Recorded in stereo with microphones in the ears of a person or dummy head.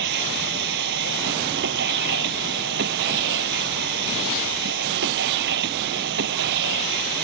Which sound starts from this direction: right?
A machine running, at 0.0 s.